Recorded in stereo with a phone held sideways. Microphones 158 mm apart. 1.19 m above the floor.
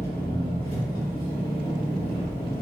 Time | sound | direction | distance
0.0 | an engine running | 50° left (ahead or behind) | 1.6 m